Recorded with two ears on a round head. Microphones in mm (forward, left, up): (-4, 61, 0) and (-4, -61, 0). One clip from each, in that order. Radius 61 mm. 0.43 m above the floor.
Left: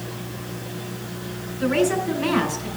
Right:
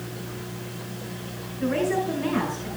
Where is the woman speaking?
75° left (ahead or behind), 5.5 m.